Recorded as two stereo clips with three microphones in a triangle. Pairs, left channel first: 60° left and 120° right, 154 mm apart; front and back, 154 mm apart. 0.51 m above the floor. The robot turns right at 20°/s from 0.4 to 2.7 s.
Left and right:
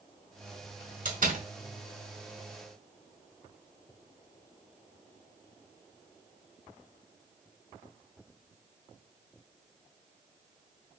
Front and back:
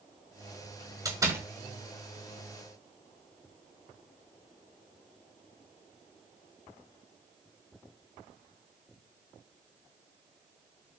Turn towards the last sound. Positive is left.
turn(degrees=-85)